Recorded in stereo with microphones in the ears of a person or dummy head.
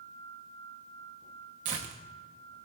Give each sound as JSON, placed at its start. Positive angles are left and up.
{"t": 1.6, "sound": "tearing paper", "side_deg": -35, "distance_m": 0.7}